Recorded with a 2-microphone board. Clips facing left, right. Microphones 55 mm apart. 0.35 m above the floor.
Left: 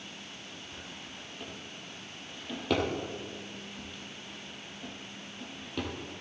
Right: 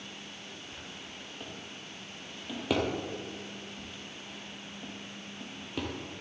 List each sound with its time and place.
0.7 s a drawer: 5° right (ahead or behind), 2.5 m